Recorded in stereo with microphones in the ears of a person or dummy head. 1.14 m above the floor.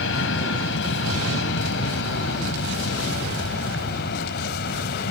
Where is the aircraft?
70° left (ahead or behind); by 5.1 s 60° left (ahead or behind).